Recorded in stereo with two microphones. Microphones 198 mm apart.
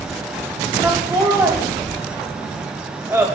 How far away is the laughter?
About 1.2 m.